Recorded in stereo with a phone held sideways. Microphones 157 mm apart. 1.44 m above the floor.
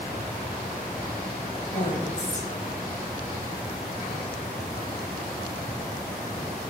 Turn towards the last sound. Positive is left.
turn(degrees=50)  # may be behind; listen again after turning